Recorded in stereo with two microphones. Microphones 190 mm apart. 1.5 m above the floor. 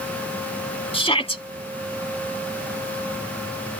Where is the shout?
30° left (ahead or behind).